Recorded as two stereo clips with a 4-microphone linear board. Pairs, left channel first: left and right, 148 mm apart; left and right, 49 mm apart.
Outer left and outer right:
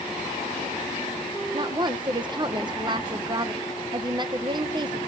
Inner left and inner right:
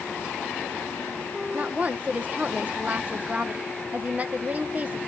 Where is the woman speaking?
30° right (ahead or behind), 1.0 m.